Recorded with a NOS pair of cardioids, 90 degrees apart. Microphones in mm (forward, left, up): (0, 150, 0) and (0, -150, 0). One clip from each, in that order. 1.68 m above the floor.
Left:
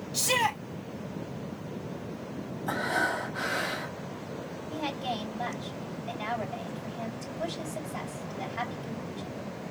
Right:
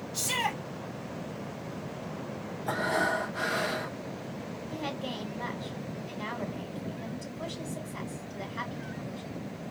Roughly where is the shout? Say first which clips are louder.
Left 4 dB; ahead left.